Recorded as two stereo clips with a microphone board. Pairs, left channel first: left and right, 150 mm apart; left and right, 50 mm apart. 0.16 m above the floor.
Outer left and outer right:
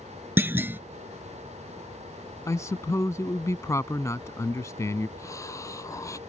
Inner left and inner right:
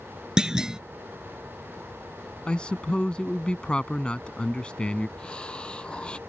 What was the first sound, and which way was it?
A clunk, 15° right (ahead or behind).